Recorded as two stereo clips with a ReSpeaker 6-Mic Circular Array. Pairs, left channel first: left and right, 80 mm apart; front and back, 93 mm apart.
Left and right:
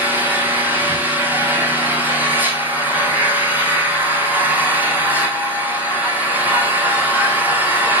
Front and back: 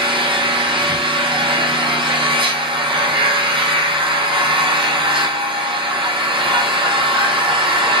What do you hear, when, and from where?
0.0 s an engine running: 160° right, 3.5 m